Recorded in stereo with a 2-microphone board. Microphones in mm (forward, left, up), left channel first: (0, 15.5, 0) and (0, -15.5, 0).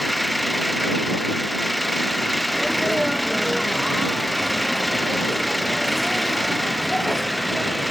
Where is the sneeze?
5° right (ahead or behind).